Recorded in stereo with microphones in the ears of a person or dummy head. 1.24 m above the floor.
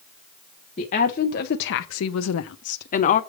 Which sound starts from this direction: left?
A woman speaking, at 0.8 s.